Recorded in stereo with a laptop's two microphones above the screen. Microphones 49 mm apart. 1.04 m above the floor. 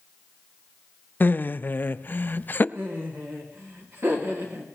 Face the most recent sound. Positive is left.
turn(degrees=-65)  # may be behind; listen again after turning